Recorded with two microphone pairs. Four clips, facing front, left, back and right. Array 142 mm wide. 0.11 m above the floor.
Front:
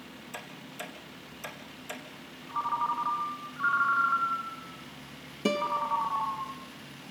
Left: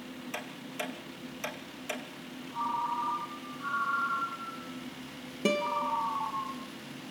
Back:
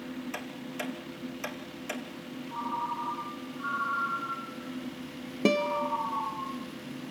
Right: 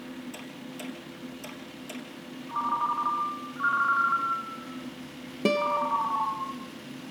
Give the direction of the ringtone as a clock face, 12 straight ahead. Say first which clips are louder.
Right 4 dB, front 4 dB; 2 o'clock.